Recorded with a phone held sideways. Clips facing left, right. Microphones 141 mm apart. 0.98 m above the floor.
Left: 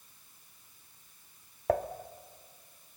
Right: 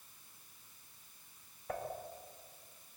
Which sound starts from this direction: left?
Dishes clattering, at 1.7 s.